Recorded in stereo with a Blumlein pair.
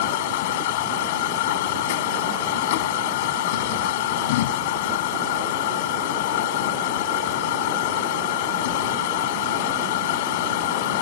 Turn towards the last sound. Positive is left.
turn(degrees=50)